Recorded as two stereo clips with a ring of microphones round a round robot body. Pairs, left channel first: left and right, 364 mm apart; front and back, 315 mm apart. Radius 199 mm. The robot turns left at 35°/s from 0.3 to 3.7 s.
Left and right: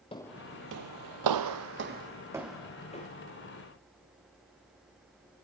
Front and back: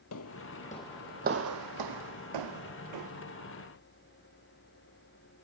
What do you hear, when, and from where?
0.1 s footsteps: 20° left, 0.7 m; by 3.1 s 160° left, 1.9 m